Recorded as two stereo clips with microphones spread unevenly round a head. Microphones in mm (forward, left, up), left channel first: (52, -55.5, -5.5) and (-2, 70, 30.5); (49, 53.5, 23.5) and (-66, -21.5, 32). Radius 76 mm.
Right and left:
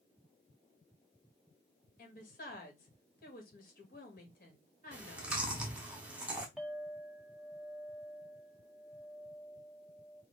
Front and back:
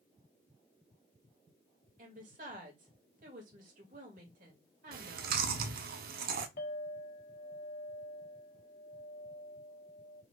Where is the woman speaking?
110° right, 1.8 m.